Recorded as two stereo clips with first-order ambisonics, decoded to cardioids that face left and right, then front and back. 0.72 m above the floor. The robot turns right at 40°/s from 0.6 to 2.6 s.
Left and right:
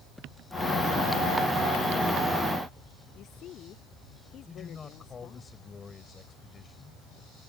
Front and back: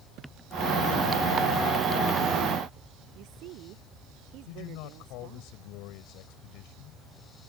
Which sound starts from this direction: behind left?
A woman speaking, at 3.1 s.